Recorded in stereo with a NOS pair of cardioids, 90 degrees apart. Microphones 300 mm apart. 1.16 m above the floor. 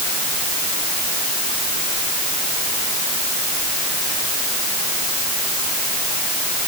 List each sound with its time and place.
Only background noise.